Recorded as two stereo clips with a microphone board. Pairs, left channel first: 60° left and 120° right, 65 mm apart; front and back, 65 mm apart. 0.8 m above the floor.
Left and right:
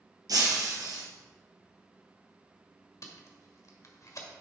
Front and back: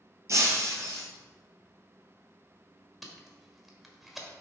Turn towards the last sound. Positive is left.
turn(degrees=95)